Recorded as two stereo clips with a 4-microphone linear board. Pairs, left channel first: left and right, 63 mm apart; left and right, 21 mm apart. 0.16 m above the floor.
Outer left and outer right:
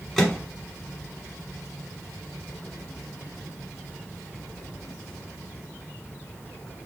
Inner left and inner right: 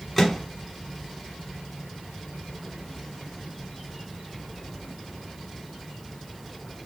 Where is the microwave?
5° left (ahead or behind), 1.0 m.